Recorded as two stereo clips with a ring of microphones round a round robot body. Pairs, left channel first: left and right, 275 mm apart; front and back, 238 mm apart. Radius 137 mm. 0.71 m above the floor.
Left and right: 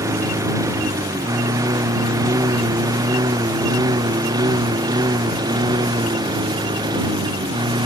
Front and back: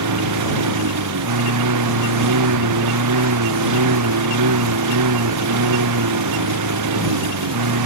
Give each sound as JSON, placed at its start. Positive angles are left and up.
{"t": 0.0, "sound": "a lawn mower", "azimuth_deg": -170}